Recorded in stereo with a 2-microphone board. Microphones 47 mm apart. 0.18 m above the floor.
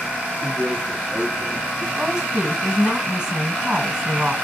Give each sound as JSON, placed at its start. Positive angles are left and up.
{"t": 0.4, "sound": "a man speaking", "side_deg": -5, "distance_m": 3.0}
{"t": 2.0, "sound": "a woman speaking", "side_deg": -15, "distance_m": 1.7}